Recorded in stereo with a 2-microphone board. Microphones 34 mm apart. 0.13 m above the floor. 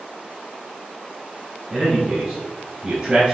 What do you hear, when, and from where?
1.7 s a man speaking: 15° right (ahead or behind), 1.4 m